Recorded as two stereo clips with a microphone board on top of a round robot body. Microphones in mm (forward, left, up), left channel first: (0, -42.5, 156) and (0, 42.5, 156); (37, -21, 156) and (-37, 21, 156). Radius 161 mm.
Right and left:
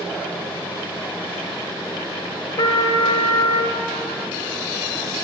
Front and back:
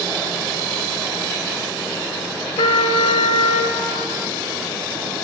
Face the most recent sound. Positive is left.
turn(degrees=-50)